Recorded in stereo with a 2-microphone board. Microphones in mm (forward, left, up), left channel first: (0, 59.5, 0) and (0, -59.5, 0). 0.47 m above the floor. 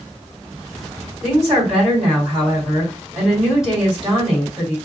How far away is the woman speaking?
About 1.9 m.